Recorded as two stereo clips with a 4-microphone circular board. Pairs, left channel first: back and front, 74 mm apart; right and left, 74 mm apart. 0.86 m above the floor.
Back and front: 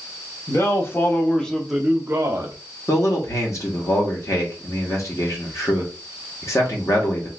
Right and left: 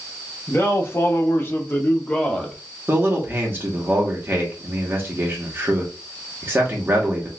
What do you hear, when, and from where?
0.5 s a man speaking: 140° right, 1.2 m; by 2.5 s 15° right, 0.9 m
2.9 s a man speaking: 145° left, 1.3 m